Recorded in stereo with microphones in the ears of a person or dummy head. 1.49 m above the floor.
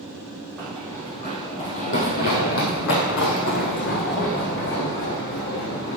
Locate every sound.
0.6 s running footsteps: 5° left (ahead or behind), 2.5 m; by 6.0 s 60° left (ahead or behind), 5.5 m